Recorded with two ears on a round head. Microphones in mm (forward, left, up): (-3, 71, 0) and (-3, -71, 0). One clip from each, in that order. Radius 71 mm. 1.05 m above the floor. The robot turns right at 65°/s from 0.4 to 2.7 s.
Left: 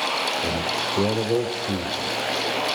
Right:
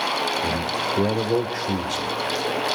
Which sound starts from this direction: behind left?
A man speaking, at 0.4 s.